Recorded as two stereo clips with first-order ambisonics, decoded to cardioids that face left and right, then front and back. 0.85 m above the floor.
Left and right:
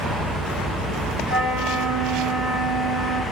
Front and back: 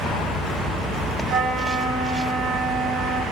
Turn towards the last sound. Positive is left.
turn(degrees=130)